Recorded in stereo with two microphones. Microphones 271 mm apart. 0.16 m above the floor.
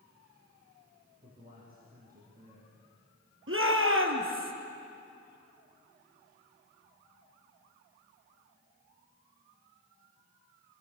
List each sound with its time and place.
1.2 s a man speaking: 30° right (ahead or behind), 6 m
3.5 s a shout: 50° right (ahead or behind), 3 m